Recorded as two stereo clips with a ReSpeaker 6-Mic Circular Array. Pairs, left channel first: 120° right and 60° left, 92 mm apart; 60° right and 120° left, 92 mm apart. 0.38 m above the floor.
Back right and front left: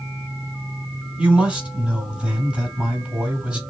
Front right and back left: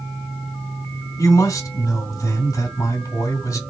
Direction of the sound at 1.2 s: 15° right.